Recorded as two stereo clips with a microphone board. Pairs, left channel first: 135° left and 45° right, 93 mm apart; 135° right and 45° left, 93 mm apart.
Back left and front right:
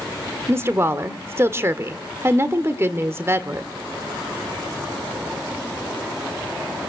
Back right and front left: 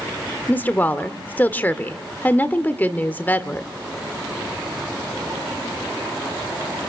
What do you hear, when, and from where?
0.5 s a woman speaking: 80° right, 1.5 m